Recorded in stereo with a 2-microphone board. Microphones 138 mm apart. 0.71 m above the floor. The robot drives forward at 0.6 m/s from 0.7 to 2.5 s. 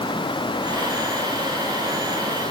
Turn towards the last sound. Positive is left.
No sound to turn to.